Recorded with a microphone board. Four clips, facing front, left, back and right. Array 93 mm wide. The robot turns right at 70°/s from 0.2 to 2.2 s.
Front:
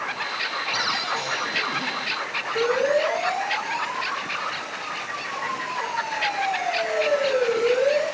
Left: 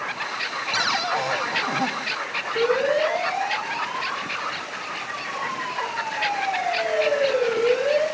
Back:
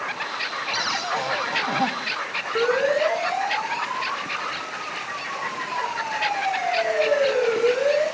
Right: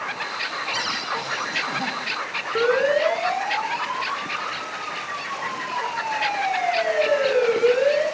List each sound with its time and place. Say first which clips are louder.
0.7 s a cupboard door: left 3 dB, back 2 dB; 90° left, 2 m; by 1.9 s 170° left, 2 m
2.5 s a siren: right 1 dB, back 1 dB; 120° right, 8.5 m